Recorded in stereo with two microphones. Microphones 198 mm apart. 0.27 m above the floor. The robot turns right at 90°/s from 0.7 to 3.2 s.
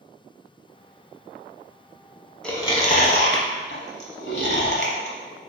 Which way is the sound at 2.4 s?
5° left (ahead or behind).